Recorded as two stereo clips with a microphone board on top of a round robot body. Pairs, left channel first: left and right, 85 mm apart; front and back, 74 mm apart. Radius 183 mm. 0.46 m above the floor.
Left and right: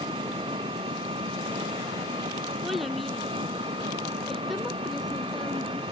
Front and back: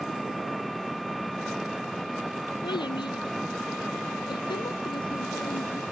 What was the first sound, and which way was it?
An engine running, 90° right.